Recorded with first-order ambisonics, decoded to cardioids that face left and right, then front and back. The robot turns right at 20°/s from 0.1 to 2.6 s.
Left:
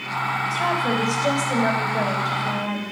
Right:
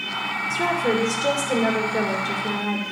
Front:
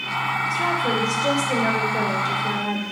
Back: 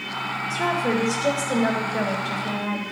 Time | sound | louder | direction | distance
0.5 | a woman speaking | right 3 dB, back 2 dB | 100° right | 2.5 m